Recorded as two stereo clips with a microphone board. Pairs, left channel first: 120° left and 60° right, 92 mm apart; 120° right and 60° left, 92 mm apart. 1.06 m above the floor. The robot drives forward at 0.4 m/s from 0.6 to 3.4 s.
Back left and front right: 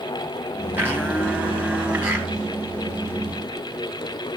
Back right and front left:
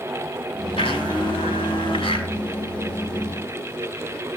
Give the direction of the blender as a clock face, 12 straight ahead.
4 o'clock.